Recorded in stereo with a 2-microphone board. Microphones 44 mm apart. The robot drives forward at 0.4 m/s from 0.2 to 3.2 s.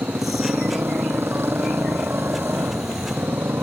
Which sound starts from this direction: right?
A motorcycle, at 0.0 s.